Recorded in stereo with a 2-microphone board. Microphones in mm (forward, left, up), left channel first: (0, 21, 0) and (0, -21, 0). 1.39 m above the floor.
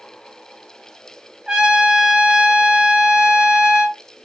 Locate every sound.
1.5 s a trumpet: 20° right (ahead or behind), 0.8 m